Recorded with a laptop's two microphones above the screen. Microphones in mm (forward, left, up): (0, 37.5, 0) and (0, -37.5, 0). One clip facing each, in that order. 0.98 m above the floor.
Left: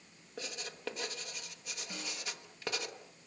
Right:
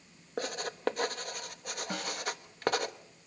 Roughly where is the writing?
Right.